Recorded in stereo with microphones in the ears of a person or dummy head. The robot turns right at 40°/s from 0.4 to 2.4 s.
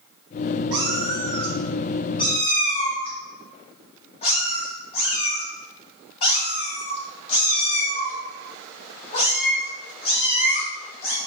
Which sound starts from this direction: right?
A cat meowing, at 0.7 s.